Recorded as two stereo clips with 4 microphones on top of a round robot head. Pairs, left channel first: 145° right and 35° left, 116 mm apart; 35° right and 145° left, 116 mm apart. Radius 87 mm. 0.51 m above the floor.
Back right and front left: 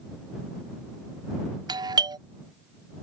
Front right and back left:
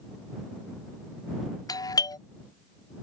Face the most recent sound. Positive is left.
turn(degrees=5)